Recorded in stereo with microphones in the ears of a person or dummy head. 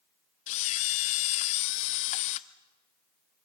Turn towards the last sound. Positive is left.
turn(degrees=45)  # may be behind; listen again after turning